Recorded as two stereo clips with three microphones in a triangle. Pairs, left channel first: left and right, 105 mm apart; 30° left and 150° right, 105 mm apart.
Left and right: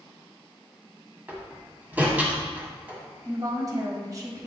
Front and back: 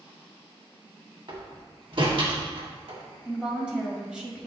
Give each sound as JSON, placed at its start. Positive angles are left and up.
{"t": 1.3, "sound": "a door slam", "azimuth_deg": -165, "distance_m": 1.6}
{"t": 3.2, "sound": "a woman speaking", "azimuth_deg": -75, "distance_m": 1.6}